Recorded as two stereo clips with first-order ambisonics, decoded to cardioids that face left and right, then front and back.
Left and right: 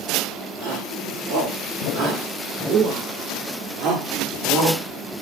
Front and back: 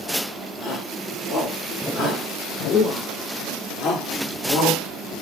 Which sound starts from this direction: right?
A shout, at 0.6 s.